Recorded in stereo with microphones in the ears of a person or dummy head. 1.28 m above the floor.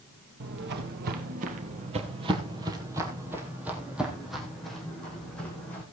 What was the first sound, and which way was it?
Footsteps, 55° right (ahead or behind).